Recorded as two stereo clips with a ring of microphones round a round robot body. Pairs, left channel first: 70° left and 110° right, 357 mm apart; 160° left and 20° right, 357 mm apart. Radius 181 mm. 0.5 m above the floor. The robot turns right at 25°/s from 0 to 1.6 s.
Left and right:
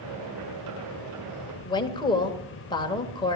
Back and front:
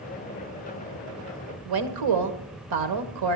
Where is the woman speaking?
10° right, 2.5 m.